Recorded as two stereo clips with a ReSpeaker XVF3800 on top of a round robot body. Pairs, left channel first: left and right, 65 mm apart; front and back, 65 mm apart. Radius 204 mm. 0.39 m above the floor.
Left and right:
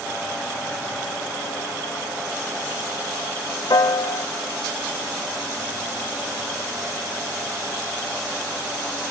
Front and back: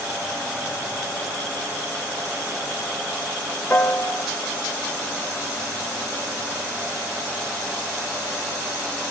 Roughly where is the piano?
Ahead left.